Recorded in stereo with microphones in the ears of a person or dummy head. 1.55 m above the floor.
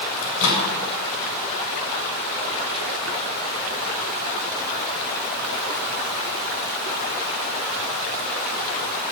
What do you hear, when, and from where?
0.2 s a microwave: 85° left, 6.5 m